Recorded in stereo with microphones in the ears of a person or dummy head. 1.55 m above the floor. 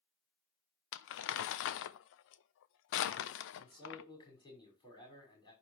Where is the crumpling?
65° left (ahead or behind), 0.7 m.